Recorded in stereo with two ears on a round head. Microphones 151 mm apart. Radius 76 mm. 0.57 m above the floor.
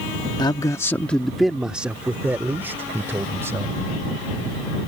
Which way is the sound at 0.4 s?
25° left (ahead or behind).